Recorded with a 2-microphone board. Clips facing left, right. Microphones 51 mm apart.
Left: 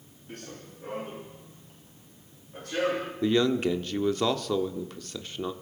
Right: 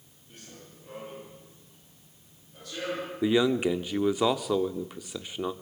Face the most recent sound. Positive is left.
turn(degrees=-10)  # may be behind; listen again after turning